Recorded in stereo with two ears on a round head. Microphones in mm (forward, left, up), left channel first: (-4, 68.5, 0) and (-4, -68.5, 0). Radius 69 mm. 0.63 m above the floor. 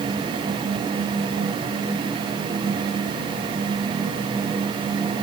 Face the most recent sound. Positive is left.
No sound to turn to.